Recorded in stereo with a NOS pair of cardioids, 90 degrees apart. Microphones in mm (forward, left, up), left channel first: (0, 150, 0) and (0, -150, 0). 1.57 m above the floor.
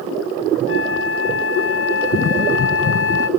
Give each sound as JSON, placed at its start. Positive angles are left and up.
{"t": 0.7, "sound": "a flute", "azimuth_deg": 45, "distance_m": 0.9}